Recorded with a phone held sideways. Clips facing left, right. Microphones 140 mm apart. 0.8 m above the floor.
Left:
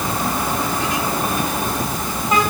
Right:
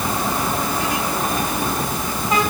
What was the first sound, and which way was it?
Only background noise.